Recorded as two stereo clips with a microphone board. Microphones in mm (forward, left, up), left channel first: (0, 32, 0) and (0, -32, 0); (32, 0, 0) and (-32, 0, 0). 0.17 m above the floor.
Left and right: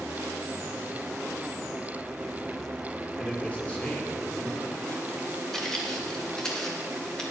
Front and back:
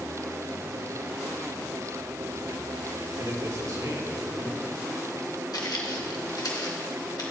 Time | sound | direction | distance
3.2 | a man speaking | 155° left | 4 m
5.5 | footsteps | 10° left | 2.5 m